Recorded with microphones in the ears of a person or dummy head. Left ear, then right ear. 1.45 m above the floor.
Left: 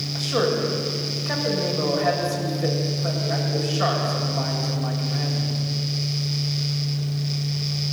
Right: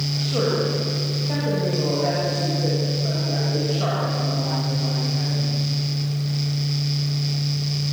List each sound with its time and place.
0.1 s a man speaking: 55° left (ahead or behind), 6.5 m